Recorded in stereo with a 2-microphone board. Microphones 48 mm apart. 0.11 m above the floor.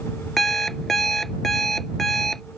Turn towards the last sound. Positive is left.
turn(degrees=5)  # may be behind; listen again after turning